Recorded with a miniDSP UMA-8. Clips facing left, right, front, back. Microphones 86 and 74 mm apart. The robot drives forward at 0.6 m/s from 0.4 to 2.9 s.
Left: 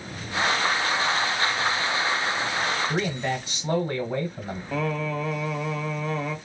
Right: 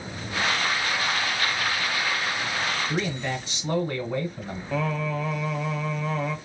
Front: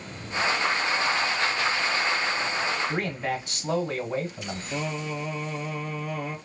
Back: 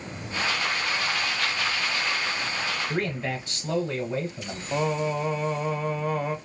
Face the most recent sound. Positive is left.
turn(degrees=-175)